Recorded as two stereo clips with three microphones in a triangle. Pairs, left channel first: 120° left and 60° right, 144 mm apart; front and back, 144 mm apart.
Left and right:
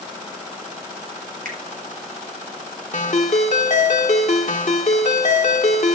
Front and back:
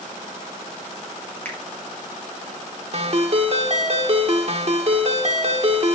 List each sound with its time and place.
1.4 s a finger snap: 75° right, 3 m
2.9 s a ringtone: 145° left, 1.5 m